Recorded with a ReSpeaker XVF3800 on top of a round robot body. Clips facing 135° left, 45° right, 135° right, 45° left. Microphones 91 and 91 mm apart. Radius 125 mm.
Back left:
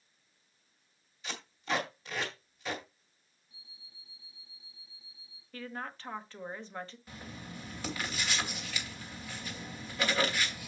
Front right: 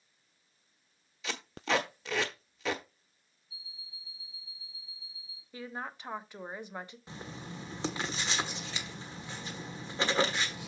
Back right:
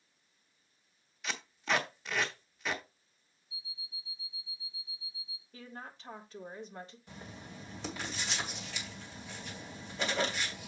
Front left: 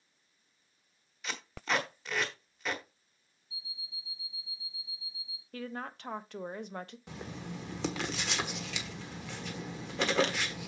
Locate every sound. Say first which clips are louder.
1.2 s tape being pulled: front right 3 dB, even; 45° right, 1.2 m
3.5 s an alarm clock: front right 6 dB, front left 1 dB; 35° left, 2 m
5.5 s a woman speaking: front right 1 dB, front left 7 dB; 30° left, 1.3 m
7.1 s writing: front right 2 dB, front left 6 dB; 20° left, 1.3 m